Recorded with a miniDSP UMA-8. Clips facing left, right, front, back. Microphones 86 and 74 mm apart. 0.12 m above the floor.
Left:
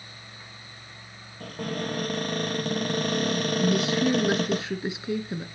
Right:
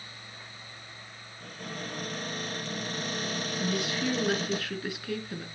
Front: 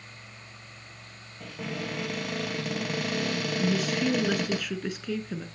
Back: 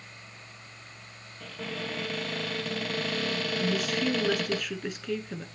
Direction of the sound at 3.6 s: 90° left.